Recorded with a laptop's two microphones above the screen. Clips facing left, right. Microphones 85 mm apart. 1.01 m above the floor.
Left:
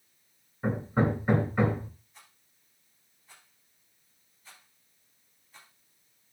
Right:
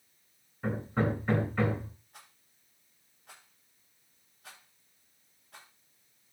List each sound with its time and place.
0.6 s hammering: 15° left (ahead or behind), 2.5 m
2.1 s a rattle: 85° right, 10 m